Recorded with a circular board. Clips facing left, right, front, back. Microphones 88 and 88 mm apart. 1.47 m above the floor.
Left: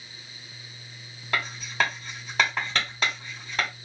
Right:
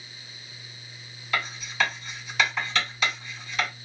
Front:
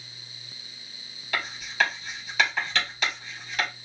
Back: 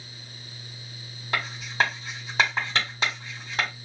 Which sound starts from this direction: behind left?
Writing, at 1.3 s.